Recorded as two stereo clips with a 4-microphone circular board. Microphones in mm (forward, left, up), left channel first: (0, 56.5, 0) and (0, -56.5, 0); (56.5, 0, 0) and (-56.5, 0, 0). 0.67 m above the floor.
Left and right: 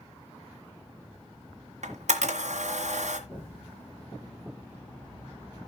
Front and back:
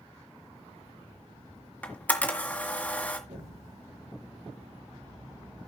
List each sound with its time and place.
1.8 s a camera shutter: 75° right, 1.8 m
3.3 s an explosion: 165° left, 10 m